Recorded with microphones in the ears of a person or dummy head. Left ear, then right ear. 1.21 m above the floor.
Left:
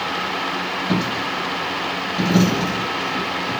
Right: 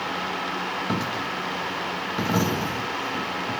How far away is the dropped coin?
About 1.2 m.